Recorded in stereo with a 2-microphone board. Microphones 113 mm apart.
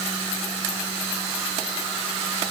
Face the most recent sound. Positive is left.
No sound to turn to.